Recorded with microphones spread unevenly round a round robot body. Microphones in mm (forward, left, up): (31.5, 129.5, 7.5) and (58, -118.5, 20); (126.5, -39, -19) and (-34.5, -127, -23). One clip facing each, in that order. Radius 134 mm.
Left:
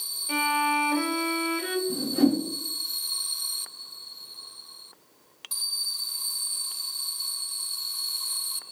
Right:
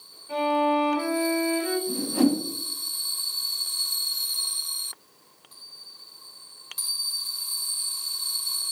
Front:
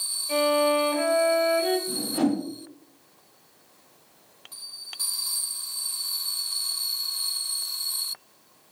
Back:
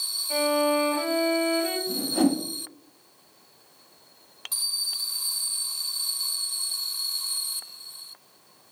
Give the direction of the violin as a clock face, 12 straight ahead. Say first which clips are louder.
Right 7 dB, front 1 dB; 9 o'clock.